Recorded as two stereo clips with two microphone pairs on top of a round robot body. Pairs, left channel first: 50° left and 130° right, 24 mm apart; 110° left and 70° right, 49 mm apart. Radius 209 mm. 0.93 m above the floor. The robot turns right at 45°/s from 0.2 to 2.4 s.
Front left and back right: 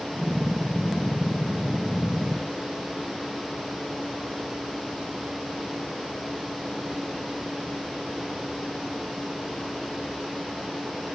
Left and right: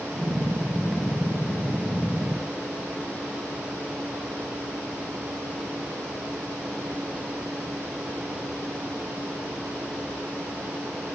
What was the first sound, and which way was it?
Only background noise.